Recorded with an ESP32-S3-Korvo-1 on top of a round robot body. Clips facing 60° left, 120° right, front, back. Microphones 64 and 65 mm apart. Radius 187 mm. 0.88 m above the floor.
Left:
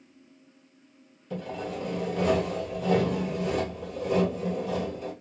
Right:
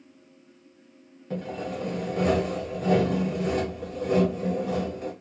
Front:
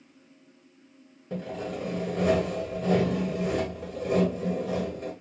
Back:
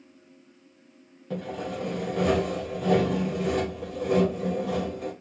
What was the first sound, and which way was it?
Sawing, 170° right.